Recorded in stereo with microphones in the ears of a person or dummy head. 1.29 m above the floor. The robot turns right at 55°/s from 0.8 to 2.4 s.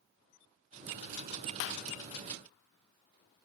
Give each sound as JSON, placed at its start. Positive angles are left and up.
{"t": 1.6, "sound": "a clap", "side_deg": 70, "distance_m": 0.7}